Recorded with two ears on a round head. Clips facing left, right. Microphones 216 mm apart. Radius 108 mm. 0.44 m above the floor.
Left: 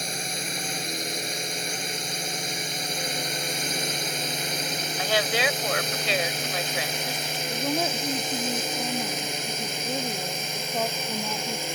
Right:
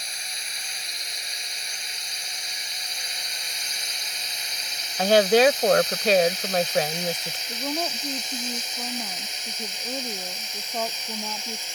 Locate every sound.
0.0 s a drone: 45° left (ahead or behind); by 11.8 s 50° left (ahead or behind)
5.0 s a woman speaking: 40° right (ahead or behind)
7.5 s a woman speaking: 5° left (ahead or behind)